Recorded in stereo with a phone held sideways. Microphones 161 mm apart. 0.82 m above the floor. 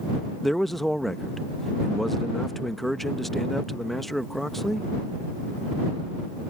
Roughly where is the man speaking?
Centre.